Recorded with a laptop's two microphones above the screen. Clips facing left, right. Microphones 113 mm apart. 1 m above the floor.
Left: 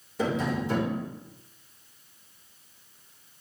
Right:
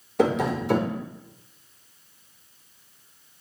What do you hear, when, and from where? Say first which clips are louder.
0.2 s tapping: right 5 dB; 70° right (ahead or behind), 4 m